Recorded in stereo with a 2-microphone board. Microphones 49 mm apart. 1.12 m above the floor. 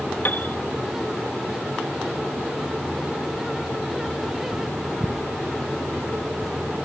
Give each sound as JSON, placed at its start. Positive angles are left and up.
{"t": 0.2, "sound": "a piano", "side_deg": 45}